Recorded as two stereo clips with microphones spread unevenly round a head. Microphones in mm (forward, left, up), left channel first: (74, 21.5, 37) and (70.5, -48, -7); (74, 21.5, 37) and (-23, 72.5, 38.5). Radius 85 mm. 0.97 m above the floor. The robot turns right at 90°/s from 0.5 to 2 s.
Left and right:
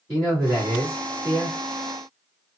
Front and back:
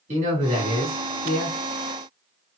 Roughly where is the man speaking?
Behind.